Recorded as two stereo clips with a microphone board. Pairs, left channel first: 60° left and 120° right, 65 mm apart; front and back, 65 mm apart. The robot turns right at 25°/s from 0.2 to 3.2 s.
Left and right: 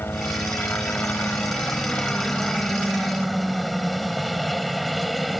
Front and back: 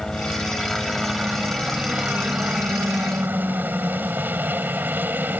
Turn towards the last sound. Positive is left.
turn(degrees=150)